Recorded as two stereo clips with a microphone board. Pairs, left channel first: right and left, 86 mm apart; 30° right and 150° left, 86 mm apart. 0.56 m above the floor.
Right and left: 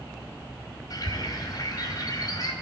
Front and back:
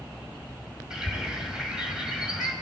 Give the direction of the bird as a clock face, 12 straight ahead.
4 o'clock.